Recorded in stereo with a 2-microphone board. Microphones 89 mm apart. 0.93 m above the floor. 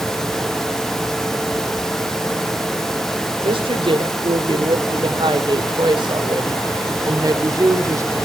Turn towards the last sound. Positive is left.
turn(degrees=-35)  # may be behind; listen again after turning